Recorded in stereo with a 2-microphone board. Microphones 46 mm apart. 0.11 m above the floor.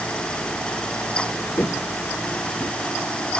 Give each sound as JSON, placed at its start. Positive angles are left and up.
{"t": 1.6, "sound": "footsteps", "side_deg": 65}